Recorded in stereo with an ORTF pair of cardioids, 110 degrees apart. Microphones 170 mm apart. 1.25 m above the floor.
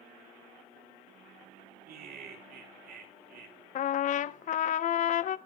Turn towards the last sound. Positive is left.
turn(degrees=50)